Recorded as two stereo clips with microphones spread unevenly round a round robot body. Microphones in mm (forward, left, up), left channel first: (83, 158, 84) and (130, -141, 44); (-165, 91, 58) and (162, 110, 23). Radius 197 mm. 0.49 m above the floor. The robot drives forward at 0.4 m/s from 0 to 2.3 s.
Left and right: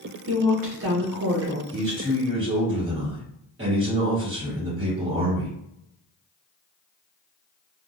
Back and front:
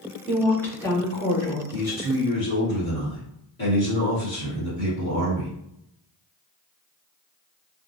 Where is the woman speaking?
75° right, 1.0 m; by 1.6 s 115° right, 1.0 m.